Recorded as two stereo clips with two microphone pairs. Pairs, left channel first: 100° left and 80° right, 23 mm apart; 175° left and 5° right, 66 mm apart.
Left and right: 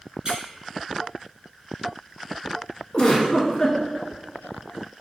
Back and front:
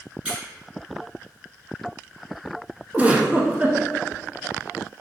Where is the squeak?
65° right, 1.2 m.